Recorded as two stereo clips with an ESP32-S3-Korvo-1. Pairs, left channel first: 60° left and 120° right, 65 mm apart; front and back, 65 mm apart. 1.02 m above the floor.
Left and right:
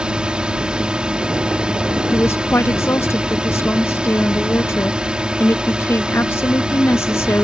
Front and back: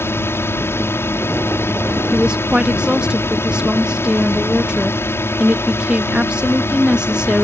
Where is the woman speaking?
105° left.